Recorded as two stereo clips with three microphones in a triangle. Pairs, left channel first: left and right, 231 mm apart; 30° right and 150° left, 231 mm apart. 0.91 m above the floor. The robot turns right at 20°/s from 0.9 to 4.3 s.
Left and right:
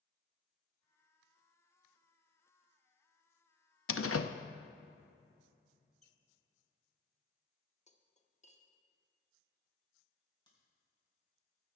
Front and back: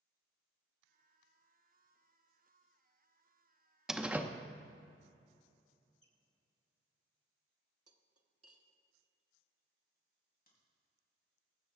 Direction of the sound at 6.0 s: 30° right.